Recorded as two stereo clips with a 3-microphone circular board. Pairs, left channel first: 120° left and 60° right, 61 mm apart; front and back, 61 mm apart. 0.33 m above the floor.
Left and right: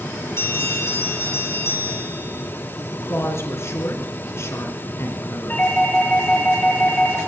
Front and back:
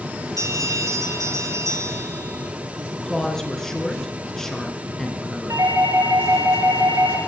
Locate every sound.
0.4 s a bell: 165° left, 5.5 m
2.9 s a woman speaking: 85° left, 3.5 m
5.5 s a doorbell: straight behind, 6.5 m